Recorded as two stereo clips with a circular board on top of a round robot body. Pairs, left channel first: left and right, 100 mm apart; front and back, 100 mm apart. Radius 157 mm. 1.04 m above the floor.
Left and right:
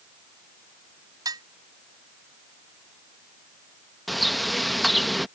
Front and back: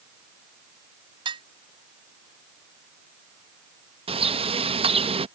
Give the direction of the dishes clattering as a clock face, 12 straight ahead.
5 o'clock.